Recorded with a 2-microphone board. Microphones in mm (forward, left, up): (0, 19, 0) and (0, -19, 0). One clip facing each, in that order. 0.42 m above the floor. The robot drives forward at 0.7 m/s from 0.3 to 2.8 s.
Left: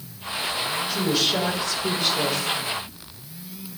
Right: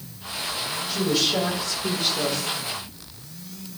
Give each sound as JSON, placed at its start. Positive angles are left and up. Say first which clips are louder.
{"t": 0.9, "sound": "a woman speaking", "louder": "right 1 dB", "side_deg": 5, "distance_m": 2.5}